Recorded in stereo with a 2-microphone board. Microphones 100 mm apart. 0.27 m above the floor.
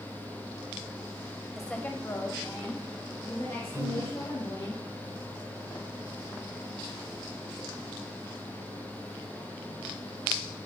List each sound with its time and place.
1.5 s a woman speaking: centre (ahead or behind), 0.9 m; by 4.7 s 50° left (ahead or behind), 5 m
3.7 s a piano: 35° right (ahead or behind), 3 m